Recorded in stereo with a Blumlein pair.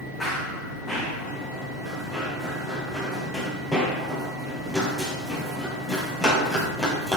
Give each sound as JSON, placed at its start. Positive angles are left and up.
{"t": 0.2, "sound": "running footsteps", "azimuth_deg": 5, "distance_m": 4.5}